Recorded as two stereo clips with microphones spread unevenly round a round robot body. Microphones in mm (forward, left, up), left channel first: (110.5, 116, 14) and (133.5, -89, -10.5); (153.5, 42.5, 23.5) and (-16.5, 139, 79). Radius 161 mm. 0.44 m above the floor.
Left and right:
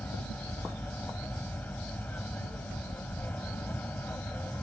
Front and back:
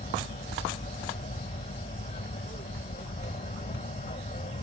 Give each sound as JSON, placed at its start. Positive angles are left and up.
{"t": 0.0, "sound": "an aircraft", "azimuth_deg": 15}